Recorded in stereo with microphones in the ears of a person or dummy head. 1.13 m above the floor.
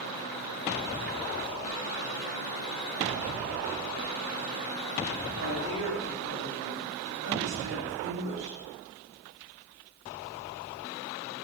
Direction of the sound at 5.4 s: 60° right (ahead or behind).